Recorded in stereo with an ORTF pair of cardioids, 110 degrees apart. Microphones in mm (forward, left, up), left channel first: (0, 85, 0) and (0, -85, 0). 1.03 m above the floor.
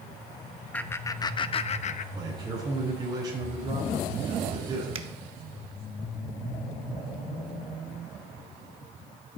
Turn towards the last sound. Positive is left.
turn(degrees=-35)